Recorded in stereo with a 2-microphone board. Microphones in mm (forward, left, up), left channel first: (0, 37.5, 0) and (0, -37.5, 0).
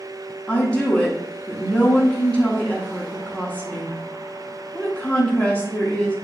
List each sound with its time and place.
0.5 s a woman speaking: 15° left (ahead or behind), 0.9 m